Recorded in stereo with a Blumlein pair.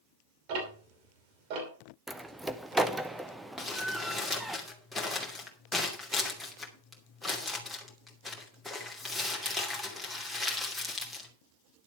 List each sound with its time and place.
0.5 s ticking: 45° right, 5.5 m
2.1 s a door slam: 5° right, 0.9 m
3.6 s crumpling: 5° left, 2.5 m